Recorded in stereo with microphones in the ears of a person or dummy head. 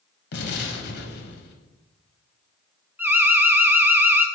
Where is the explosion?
60° left (ahead or behind), 1.2 m.